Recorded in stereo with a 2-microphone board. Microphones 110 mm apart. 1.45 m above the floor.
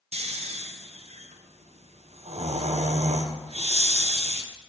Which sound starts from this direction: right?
Snoring, at 0.1 s.